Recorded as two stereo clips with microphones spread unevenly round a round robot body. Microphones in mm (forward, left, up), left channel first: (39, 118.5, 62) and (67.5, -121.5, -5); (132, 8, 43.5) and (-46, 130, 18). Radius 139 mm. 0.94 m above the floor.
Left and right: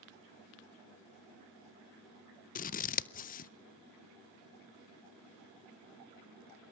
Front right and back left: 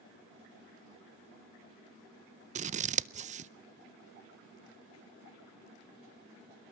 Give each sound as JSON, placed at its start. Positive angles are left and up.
{"t": 2.5, "sound": "scissors", "azimuth_deg": 160, "distance_m": 0.6}